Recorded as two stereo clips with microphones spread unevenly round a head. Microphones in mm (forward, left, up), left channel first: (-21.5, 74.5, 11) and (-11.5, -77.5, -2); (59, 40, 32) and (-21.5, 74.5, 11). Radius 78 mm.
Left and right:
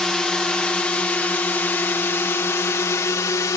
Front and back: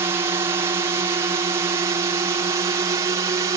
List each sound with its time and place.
0.0 s a drone: straight behind; by 3.6 s 155° left